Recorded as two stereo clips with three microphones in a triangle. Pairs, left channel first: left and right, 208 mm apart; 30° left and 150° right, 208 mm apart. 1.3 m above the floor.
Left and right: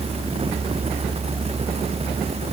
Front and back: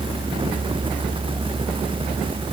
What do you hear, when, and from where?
Only background noise.